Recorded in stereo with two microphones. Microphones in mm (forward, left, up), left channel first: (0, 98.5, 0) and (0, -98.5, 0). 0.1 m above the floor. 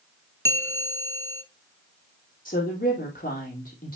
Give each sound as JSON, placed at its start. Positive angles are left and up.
{"t": 0.5, "sound": "a bell", "side_deg": 15, "distance_m": 0.8}
{"t": 2.5, "sound": "a woman speaking", "side_deg": 45, "distance_m": 3.0}